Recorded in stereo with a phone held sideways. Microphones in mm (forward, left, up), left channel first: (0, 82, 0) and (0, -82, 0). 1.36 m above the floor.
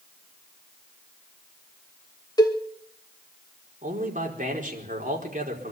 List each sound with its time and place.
2.4 s a cowbell: 25° left (ahead or behind), 2.5 m
3.8 s a man speaking: 50° right (ahead or behind), 4.5 m